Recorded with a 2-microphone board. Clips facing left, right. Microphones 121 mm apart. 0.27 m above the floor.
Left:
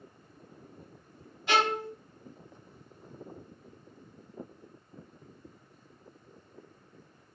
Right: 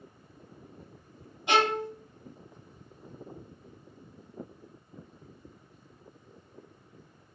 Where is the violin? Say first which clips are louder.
Right 2 dB; 20° right (ahead or behind), 1.0 m.